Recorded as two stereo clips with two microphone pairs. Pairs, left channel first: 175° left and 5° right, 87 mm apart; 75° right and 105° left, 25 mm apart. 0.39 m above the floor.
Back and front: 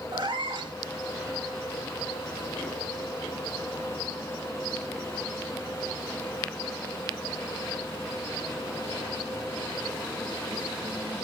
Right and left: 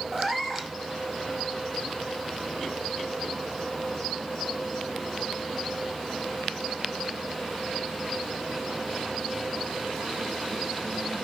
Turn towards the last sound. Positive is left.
turn(degrees=25)